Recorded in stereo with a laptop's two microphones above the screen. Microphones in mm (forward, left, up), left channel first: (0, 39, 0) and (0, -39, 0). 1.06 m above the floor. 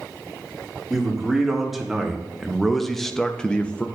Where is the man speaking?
5° right (ahead or behind), 2.0 m; by 3.9 s 15° left (ahead or behind), 0.5 m.